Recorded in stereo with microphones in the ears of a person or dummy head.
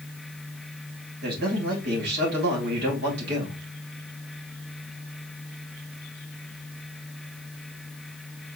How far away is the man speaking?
About 3 m.